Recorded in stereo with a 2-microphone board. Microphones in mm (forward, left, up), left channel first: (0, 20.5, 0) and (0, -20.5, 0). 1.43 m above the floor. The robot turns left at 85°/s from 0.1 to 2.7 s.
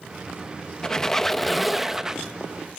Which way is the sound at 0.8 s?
15° left (ahead or behind).